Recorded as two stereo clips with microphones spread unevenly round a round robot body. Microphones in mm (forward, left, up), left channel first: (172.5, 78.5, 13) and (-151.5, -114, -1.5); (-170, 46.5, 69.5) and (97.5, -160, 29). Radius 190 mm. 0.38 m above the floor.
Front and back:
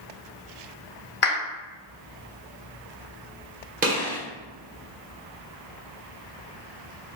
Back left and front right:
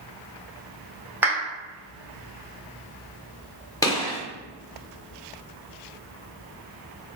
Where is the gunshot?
135° right, 1.4 m.